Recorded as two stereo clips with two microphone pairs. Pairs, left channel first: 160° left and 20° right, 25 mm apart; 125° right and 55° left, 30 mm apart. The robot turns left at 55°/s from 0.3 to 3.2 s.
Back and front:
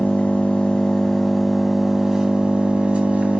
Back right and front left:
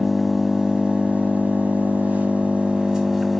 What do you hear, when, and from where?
0.0 s an engine running: 135° left, 2.5 m; by 3.4 s 25° right, 2.5 m